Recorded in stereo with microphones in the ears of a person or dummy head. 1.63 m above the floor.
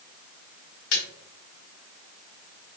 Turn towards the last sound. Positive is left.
turn(degrees=80)